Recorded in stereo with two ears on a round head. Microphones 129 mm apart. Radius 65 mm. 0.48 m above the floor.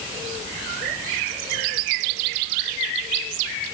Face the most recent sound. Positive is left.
No sound to turn to.